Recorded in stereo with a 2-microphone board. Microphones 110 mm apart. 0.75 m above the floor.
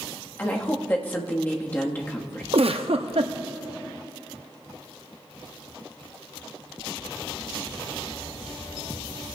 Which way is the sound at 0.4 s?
20° left (ahead or behind).